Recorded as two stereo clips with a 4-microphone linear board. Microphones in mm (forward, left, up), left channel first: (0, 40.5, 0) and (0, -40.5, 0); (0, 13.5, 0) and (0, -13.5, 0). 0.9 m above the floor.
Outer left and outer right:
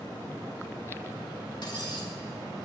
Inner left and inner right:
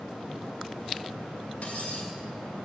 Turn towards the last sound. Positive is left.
turn(degrees=65)  # may be behind; listen again after turning